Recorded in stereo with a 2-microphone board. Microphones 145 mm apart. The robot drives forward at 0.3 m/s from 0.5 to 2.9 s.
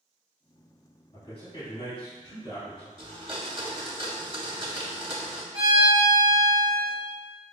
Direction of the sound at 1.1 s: 40° left (ahead or behind).